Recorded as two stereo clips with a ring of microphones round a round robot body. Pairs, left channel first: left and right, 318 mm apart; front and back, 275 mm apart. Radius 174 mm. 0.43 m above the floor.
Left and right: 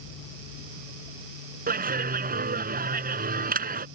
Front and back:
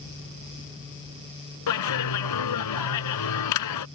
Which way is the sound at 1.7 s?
25° right.